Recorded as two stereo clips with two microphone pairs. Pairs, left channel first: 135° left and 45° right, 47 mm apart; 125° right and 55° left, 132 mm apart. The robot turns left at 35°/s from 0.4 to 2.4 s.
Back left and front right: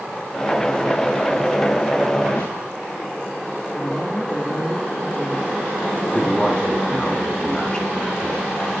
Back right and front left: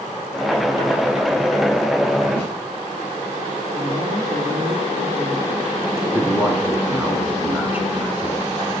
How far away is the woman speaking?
About 3 m.